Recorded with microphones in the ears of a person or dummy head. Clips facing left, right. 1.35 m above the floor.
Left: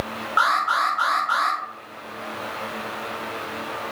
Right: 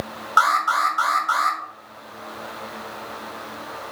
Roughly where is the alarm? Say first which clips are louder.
Right 3 dB; right.